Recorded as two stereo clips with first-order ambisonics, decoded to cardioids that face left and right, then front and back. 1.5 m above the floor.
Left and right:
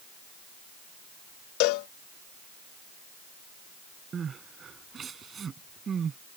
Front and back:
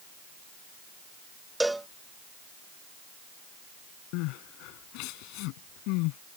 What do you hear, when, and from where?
1.6 s a cowbell: 95° left
4.1 s crying: 20° right